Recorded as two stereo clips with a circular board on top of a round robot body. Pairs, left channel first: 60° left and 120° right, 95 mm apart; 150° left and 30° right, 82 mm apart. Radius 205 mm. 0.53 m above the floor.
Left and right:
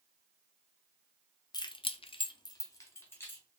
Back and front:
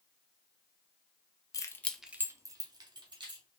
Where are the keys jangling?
105° left, 0.6 m; by 3.4 s 10° right, 1.4 m.